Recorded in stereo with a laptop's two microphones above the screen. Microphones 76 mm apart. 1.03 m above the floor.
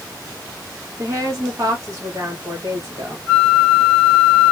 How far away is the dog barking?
No dog barking in this recording.